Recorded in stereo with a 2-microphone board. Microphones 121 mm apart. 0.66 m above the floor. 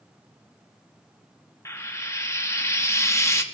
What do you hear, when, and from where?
1.6 s frying: 25° left (ahead or behind), 0.9 m